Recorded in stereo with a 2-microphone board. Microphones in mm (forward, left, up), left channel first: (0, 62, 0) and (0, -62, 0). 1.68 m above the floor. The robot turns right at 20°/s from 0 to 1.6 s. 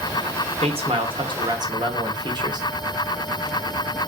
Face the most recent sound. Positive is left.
turn(degrees=-35)  # may be behind; listen again after turning